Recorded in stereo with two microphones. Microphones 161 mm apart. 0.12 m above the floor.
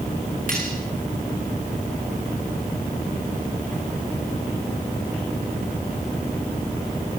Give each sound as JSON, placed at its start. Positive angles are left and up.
{"t": 0.5, "sound": "cutlery clinking", "side_deg": -60, "distance_m": 8.5}